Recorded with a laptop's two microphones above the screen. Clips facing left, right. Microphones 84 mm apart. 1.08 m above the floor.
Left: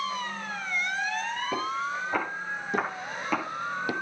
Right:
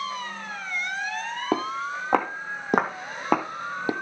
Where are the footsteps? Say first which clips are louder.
Right 5 dB; 75° right (ahead or behind), 4 m; by 3.9 s 30° right (ahead or behind), 1.6 m.